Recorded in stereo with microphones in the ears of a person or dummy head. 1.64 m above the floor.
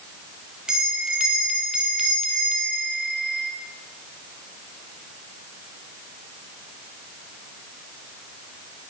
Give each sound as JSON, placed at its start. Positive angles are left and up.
{"t": 0.7, "sound": "a bell", "side_deg": -5, "distance_m": 1.4}